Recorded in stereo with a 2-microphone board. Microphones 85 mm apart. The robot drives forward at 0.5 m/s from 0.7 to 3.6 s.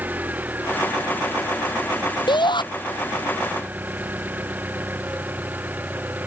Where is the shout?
65° left (ahead or behind).